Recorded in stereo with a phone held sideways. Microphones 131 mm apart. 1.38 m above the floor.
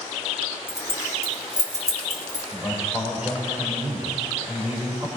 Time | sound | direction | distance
0.7 | keys jangling | 25° left (ahead or behind) | 1.8 m
2.5 | a man speaking | 10° right (ahead or behind) | 4.5 m